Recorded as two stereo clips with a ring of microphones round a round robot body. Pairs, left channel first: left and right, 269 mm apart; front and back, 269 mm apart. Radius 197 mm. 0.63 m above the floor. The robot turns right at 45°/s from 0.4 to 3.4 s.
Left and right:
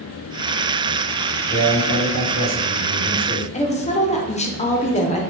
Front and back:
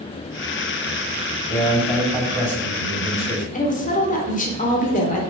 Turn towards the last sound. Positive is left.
turn(degrees=40)